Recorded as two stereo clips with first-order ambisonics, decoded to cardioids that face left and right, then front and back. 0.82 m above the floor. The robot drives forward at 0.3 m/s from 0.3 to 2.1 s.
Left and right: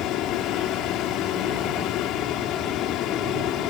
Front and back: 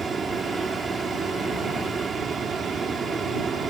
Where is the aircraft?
110° left.